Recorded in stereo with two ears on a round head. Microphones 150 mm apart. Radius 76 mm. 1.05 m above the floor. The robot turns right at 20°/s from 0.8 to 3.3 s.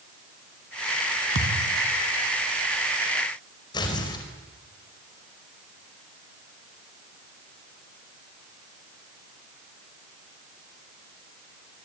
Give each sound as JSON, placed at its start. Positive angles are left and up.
{"t": 1.4, "sound": "a thud", "side_deg": -75, "distance_m": 2.5}
{"t": 3.7, "sound": "tearing paper", "side_deg": 25, "distance_m": 4.5}